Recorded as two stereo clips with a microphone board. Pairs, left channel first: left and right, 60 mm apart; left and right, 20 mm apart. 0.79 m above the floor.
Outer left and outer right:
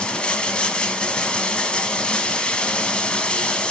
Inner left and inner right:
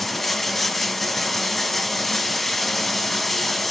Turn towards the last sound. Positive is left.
turn(degrees=15)  # may be behind; listen again after turning